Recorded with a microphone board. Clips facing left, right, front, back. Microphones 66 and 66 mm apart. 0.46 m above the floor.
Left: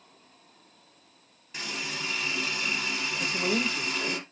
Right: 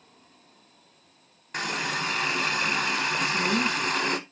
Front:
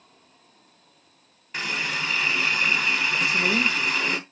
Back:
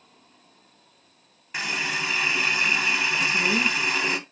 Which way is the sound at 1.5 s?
100° right.